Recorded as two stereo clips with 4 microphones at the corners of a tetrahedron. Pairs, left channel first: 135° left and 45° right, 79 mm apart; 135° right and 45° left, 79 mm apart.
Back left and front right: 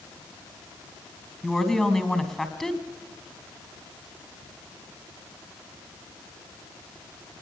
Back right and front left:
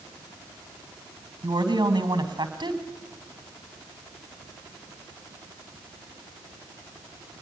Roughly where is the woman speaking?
Ahead left.